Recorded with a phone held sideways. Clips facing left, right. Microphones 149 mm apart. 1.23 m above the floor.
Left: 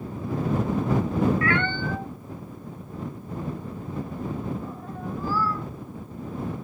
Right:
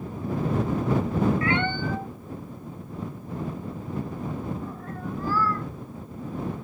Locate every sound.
1.4 s a cat meowing: 25° right (ahead or behind); by 5.7 s 15° left (ahead or behind)